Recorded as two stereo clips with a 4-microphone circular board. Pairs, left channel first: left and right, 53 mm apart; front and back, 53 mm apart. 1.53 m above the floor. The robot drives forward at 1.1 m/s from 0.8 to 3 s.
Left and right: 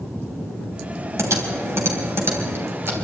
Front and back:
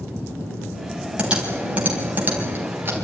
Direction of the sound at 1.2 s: 110° right.